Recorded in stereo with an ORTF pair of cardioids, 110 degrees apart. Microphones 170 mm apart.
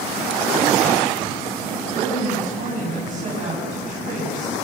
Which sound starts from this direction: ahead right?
A woman speaking, at 1.9 s.